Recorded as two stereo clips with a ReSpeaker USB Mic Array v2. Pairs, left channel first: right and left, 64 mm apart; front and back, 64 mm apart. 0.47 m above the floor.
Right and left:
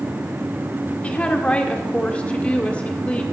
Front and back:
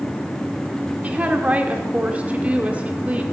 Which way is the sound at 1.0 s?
140° right.